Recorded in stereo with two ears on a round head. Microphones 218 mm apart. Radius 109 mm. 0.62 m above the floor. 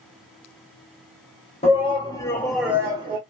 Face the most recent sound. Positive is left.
turn(degrees=-25)  # may be behind; listen again after turning